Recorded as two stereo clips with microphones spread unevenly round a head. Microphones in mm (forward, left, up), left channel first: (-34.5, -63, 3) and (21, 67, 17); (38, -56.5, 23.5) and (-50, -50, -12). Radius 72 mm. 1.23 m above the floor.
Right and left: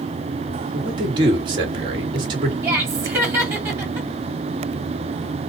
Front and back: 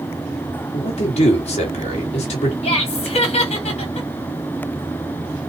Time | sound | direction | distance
0.7 | a man speaking | 5° left | 1.9 m
2.6 | laughter | 5° right | 2 m